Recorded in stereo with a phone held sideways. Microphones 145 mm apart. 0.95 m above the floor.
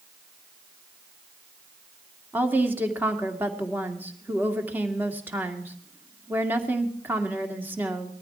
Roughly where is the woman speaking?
Centre.